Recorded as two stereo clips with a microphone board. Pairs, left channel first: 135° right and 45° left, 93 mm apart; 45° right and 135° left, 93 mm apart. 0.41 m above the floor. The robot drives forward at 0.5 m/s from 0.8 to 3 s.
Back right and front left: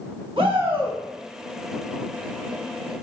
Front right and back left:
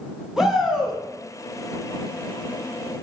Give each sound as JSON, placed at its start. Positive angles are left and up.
{"t": 0.4, "sound": "a shout", "azimuth_deg": 50, "distance_m": 2.5}